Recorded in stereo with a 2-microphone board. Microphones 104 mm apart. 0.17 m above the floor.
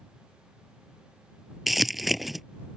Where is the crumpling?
Centre (ahead or behind).